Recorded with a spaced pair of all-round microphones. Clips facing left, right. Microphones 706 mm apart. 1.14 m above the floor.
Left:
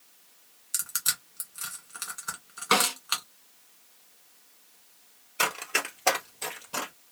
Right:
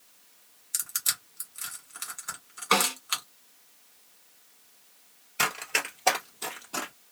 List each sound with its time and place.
0.7 s crushing: 60° left (ahead or behind), 1.6 m
2.7 s a snare drum: 45° left (ahead or behind), 1.0 m
5.4 s running footsteps: 30° right (ahead or behind), 1.4 m; by 6.9 s 35° left (ahead or behind), 1.9 m